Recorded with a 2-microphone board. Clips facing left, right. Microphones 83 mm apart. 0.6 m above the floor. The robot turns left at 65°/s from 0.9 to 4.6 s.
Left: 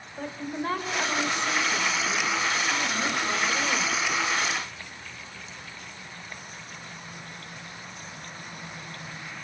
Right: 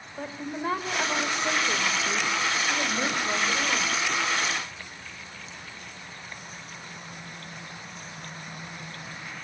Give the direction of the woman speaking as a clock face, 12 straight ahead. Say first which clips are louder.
Left 1 dB; 12 o'clock.